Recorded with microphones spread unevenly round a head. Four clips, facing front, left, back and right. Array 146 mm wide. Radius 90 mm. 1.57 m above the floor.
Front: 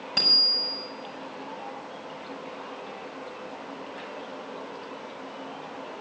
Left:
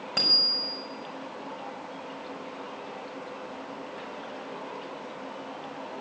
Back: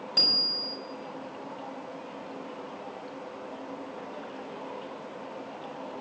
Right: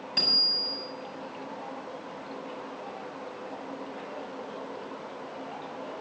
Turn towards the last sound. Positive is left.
turn(degrees=55)